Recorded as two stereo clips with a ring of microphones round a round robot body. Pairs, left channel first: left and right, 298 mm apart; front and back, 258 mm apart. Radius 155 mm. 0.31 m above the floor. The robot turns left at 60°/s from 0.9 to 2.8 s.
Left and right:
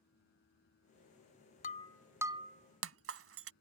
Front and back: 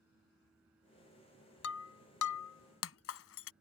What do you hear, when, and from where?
1.6 s breaking glass: 25° left; by 3.5 s 45° right